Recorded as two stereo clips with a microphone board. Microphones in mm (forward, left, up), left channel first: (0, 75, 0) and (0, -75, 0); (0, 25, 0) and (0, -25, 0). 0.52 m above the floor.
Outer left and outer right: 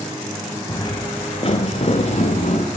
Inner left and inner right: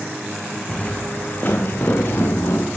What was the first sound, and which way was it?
Footsteps, 25° left (ahead or behind).